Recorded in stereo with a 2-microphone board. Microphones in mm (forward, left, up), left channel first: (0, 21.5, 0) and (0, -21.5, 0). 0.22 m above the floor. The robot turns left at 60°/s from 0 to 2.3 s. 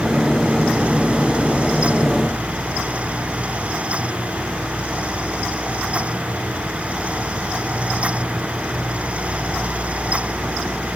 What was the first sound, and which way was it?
Only background noise.